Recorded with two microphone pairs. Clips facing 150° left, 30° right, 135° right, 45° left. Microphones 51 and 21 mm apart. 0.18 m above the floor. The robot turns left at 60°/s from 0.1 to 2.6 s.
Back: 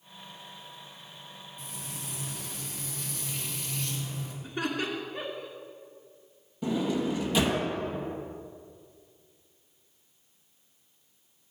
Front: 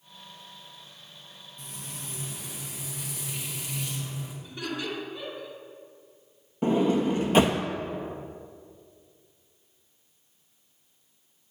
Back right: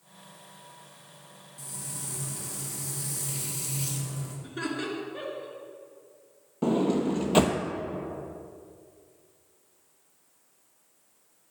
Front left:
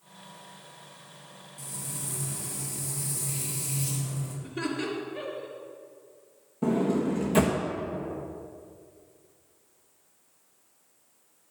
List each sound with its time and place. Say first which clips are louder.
1.6 s frying: front 1 dB, front left 1 dB; 45° right, 2 m; by 4.3 s 110° right, 2 m
4.4 s laughter: back 3 dB, front left 1 dB; 160° left, 2.5 m
6.6 s a sliding door: front 5 dB, back right 1 dB; 80° right, 0.9 m